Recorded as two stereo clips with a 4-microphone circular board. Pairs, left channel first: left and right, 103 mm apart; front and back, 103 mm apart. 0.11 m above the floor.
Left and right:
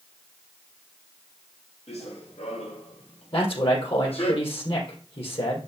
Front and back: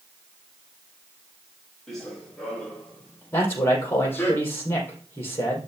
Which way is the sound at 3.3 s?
65° left.